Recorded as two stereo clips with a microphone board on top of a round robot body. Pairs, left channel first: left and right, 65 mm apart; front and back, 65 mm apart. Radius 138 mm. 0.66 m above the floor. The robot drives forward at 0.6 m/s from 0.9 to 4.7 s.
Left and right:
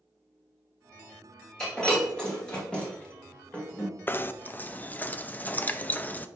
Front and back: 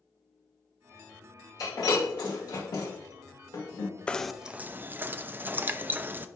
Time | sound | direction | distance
1.6 | breaking glass | 10° left | 3 m
4.1 | knocking | 60° left | 0.5 m